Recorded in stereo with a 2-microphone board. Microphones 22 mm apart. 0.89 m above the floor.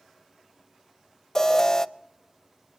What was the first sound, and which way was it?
An alarm, 25° left (ahead or behind).